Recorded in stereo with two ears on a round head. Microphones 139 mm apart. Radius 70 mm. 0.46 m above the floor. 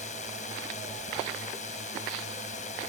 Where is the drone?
50° left (ahead or behind).